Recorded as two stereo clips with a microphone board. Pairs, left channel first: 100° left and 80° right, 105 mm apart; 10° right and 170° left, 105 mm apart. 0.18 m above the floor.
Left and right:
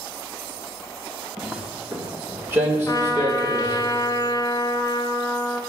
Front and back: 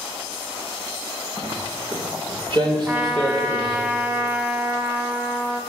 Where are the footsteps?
160° right, 1.3 m; by 3.9 s 140° right, 3 m.